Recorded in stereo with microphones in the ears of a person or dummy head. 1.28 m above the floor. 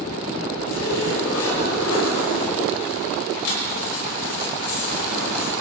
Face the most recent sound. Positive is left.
turn(degrees=75)  # may be behind; listen again after turning